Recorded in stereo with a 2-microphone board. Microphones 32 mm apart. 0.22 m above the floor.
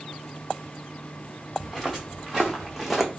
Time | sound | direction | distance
1.6 | footsteps | centre (ahead or behind) | 1.3 m